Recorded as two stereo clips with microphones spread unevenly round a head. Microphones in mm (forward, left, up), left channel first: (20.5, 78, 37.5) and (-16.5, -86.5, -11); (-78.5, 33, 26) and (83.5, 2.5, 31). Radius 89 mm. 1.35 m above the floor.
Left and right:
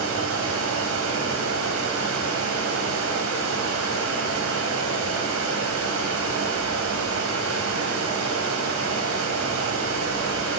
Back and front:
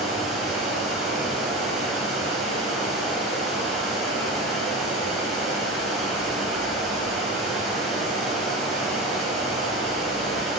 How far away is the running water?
About 2.5 m.